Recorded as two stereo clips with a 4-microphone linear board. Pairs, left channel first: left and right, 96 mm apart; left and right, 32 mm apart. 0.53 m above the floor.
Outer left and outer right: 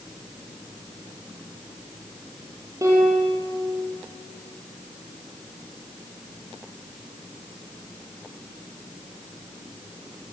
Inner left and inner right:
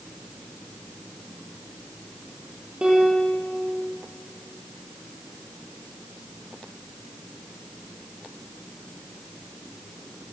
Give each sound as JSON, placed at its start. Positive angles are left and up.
{"t": 2.8, "sound": "a piano", "side_deg": -30, "distance_m": 6.5}